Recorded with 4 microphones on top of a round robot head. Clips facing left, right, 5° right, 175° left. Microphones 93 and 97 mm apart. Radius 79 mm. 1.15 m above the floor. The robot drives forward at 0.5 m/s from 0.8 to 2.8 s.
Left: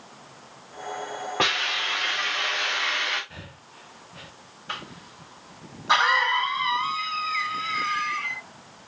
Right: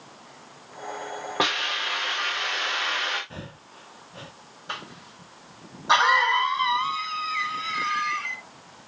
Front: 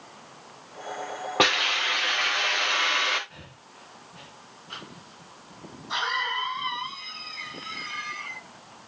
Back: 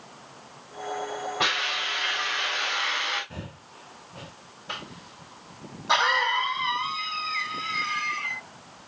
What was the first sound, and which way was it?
A hiss, 10° right.